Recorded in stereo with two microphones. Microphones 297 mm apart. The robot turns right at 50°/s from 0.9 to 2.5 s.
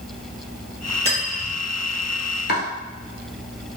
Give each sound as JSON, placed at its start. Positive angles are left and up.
{"t": 1.1, "sound": "cutlery clinking", "side_deg": -20, "distance_m": 1.5}
{"t": 2.5, "sound": "chopping", "side_deg": 35, "distance_m": 0.9}